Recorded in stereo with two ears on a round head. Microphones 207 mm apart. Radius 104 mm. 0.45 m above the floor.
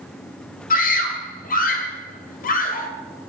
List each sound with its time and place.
0.7 s a scream: 35° left (ahead or behind), 1.9 m